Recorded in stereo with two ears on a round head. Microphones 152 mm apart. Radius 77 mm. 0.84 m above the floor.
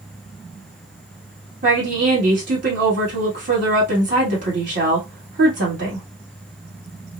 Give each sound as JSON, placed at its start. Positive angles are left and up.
{"t": 1.6, "sound": "a woman speaking", "side_deg": -50, "distance_m": 1.8}